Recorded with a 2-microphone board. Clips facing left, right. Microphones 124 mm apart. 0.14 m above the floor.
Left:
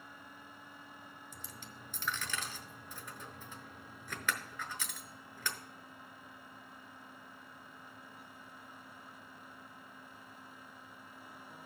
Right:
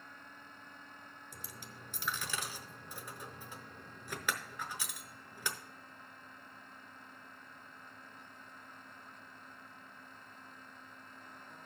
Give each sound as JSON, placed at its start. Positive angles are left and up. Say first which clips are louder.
{"t": 1.3, "sound": "a dropped coin", "louder": "even", "side_deg": -10, "distance_m": 0.8}